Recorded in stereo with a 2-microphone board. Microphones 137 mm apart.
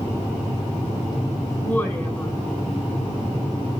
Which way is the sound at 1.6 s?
15° left (ahead or behind).